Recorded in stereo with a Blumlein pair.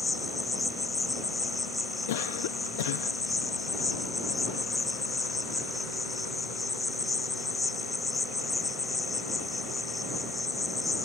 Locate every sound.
0.0 s an insect: 10° left
2.1 s a cough: 55° left